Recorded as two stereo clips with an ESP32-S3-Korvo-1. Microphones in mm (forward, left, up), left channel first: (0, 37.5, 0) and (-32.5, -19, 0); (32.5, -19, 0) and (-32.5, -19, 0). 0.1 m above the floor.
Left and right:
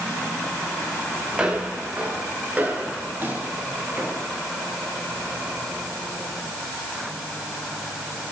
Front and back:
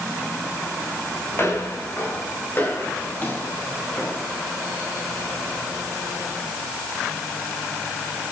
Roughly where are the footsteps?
Ahead right.